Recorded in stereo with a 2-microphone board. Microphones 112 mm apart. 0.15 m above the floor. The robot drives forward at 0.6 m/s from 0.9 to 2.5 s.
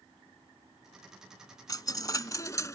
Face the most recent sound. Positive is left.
turn(degrees=30)  # may be behind; listen again after turning